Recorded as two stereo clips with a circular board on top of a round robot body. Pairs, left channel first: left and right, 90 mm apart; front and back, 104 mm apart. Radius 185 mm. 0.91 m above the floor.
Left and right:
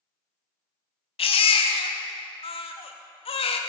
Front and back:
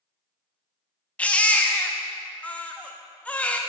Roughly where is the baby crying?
Left.